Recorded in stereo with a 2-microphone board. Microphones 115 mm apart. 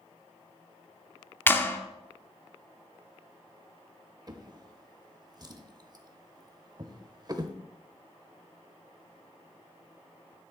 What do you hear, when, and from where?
1.5 s a clap: 20° left (ahead or behind), 0.9 m
4.3 s a drawer: 35° right (ahead or behind), 0.8 m